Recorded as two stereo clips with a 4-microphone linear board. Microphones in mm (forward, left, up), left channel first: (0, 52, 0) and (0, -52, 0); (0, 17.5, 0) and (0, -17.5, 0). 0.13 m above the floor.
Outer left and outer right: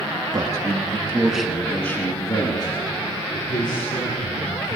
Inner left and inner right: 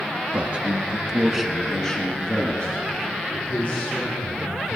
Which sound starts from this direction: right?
A man speaking, at 0.3 s.